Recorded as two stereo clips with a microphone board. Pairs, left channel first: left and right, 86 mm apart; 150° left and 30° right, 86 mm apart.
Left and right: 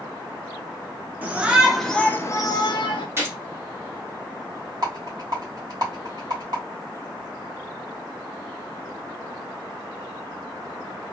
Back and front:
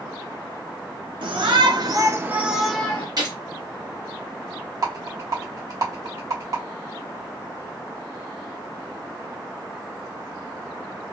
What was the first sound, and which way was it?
A shout, 20° right.